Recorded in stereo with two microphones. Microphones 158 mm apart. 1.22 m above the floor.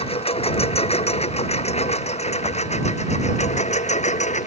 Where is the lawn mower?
40° left (ahead or behind); by 4.5 s 50° left (ahead or behind).